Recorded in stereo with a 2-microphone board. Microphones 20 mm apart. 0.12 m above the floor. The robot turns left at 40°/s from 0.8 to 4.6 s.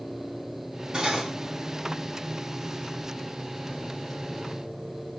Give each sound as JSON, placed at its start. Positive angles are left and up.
{"t": 0.9, "sound": "cutlery clinking", "side_deg": -35, "distance_m": 2.5}